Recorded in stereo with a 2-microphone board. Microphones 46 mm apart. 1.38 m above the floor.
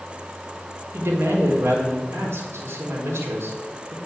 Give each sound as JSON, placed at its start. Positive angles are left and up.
{"t": 0.9, "sound": "a woman speaking", "side_deg": -85, "distance_m": 4.5}